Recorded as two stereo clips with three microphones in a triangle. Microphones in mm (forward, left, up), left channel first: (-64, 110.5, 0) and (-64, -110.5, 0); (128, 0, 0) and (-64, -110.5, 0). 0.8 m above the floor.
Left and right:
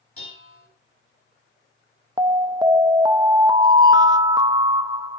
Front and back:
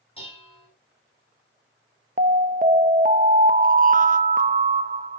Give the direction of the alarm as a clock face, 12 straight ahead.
5 o'clock.